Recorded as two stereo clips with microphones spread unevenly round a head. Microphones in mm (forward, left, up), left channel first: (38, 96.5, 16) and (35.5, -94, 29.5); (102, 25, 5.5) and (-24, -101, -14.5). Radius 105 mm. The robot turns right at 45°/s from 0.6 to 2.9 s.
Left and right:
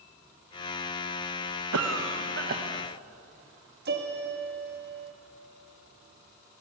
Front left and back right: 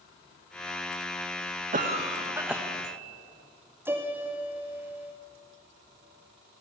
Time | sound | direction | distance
1.7 | a cough | 90° right | 1.5 m
3.9 | a piano | 55° right | 2 m